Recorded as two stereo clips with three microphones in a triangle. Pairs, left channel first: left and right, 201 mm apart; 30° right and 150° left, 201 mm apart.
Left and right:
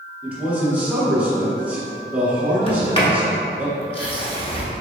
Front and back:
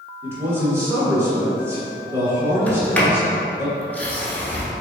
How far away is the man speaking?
About 1.3 m.